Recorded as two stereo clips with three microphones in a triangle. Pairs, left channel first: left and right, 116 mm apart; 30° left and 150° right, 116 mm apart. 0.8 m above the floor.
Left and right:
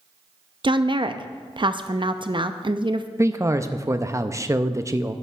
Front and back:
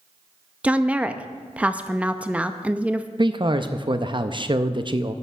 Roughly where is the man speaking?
Behind right.